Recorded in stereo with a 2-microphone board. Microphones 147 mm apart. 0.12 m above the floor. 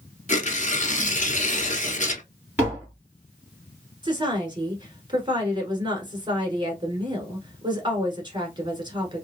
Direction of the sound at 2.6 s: 15° right (ahead or behind).